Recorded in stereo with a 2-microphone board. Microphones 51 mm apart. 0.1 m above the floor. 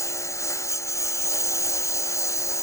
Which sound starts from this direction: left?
A lawn mower, at 0.0 s.